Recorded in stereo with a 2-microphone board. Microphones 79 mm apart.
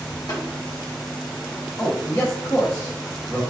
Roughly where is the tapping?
Left.